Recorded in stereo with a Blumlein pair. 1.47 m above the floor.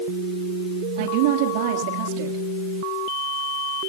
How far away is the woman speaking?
About 3 m.